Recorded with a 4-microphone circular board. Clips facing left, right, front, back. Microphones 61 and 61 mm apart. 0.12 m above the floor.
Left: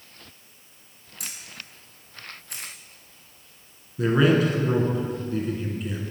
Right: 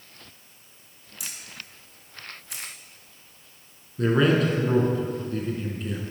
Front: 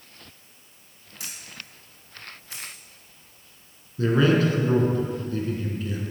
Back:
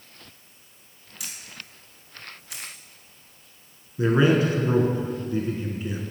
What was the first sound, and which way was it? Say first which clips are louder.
A camera shutter: even, even; 55° left.